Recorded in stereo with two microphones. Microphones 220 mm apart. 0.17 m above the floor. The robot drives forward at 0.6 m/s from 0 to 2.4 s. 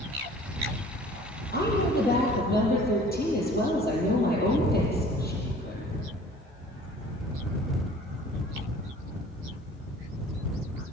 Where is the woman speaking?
50° left (ahead or behind), 5.5 m; by 5.9 s 45° left (ahead or behind), 6 m.